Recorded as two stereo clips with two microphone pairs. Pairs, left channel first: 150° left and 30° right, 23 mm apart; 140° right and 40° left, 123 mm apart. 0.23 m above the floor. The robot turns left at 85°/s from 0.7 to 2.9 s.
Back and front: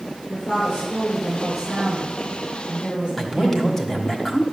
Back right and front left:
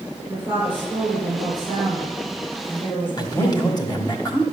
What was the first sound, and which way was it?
A woman speaking, 115° left.